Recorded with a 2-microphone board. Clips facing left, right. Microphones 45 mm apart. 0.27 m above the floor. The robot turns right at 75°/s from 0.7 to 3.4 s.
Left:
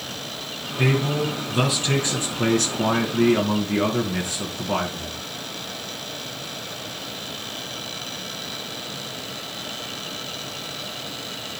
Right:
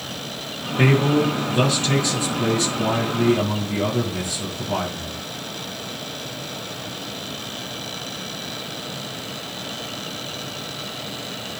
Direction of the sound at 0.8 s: 55° right.